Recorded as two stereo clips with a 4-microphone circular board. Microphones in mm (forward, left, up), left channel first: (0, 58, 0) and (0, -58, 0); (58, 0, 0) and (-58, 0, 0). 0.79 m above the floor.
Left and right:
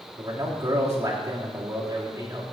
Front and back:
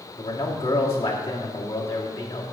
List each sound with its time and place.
0.2 s a man speaking: 25° right, 2 m